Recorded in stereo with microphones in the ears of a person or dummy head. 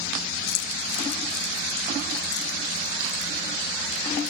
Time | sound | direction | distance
0.5 | keys jangling | 60° left (ahead or behind) | 2.5 m